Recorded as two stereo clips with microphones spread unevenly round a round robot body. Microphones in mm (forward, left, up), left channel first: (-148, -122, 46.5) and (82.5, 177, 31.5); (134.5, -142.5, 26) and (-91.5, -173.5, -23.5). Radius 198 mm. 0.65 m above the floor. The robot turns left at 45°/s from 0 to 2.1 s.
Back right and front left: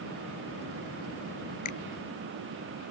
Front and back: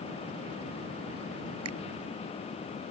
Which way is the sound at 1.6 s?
170° right.